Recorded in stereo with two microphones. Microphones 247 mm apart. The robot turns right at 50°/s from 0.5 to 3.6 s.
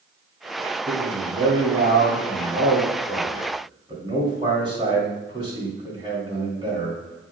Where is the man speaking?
160° right, 1.9 m; by 7.3 s 25° right, 1.9 m.